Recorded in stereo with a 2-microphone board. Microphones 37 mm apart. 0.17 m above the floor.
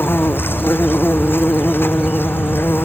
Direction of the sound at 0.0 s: 75° left (ahead or behind).